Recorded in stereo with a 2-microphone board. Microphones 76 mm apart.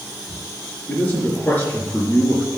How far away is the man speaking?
About 4 m.